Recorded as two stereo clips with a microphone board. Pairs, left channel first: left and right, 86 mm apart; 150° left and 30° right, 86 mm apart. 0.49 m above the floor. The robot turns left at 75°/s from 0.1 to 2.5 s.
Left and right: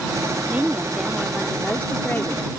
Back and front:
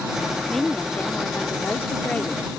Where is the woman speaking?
125° right; by 2.5 s 85° left.